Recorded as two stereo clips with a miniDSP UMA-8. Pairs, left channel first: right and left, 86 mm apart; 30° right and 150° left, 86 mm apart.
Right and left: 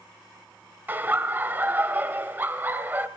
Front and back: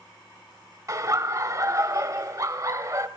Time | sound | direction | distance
0.9 | laughter | 145° left | 1.1 m